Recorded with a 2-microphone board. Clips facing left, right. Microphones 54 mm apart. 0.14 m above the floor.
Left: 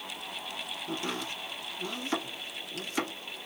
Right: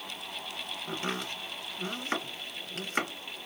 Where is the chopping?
40° right (ahead or behind), 1.9 m.